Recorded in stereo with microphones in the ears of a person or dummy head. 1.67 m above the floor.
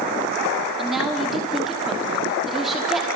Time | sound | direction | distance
0.8 | a woman speaking | centre (ahead or behind) | 5 m